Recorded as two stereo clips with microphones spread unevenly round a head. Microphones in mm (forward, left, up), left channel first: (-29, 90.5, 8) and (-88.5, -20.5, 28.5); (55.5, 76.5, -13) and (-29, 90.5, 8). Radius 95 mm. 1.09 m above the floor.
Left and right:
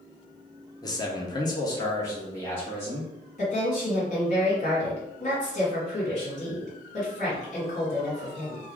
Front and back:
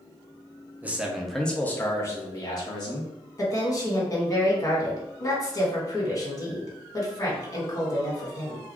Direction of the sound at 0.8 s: 90° left.